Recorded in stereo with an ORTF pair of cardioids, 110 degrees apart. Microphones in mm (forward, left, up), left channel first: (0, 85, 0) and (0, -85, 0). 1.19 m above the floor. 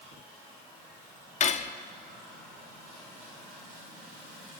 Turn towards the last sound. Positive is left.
turn(degrees=45)